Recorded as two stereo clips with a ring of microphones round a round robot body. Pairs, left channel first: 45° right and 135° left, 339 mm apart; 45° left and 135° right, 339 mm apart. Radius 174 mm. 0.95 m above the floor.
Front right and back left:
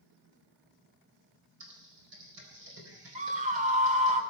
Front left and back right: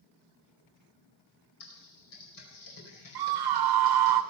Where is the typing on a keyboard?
80° left, 4.5 m.